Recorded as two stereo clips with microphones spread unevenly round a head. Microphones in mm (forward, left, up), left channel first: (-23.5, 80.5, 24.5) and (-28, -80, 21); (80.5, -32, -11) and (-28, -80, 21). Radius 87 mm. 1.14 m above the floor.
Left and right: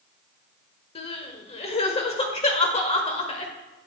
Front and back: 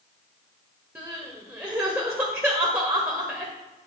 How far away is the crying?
About 1.3 m.